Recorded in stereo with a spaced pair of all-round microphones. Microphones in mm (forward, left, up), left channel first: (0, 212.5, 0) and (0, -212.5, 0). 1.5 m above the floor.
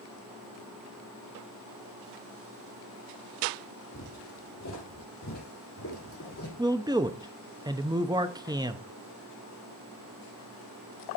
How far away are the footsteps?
About 3 m.